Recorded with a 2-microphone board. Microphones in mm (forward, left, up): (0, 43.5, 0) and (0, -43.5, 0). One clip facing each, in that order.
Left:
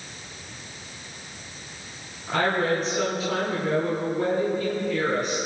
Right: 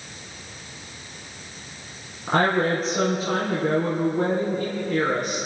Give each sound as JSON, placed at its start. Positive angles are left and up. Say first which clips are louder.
{"t": 2.3, "sound": "a woman speaking", "louder": "right 3 dB", "side_deg": -45, "distance_m": 3.0}